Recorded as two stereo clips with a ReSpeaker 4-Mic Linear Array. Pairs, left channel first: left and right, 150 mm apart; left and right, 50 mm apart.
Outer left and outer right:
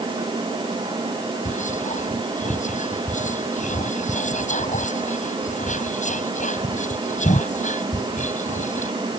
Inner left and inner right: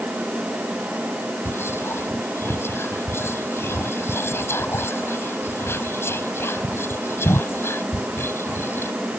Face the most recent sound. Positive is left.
turn(degrees=60)  # may be behind; listen again after turning